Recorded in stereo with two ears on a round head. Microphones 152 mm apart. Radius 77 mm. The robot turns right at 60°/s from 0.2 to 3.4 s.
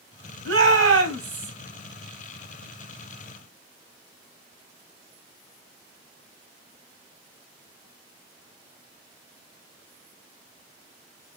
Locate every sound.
0.5 s a shout: 100° right, 3 m; by 1.5 s 35° right, 3 m